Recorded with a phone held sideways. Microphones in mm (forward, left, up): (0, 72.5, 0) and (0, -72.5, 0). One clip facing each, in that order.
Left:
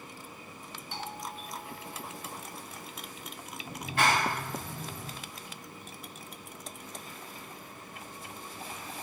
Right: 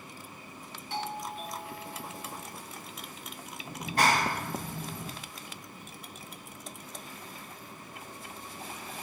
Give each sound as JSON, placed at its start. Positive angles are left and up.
{"t": 0.9, "sound": "a doorbell", "side_deg": -80, "distance_m": 2.0}
{"t": 3.8, "sound": "a clap", "side_deg": -40, "distance_m": 1.6}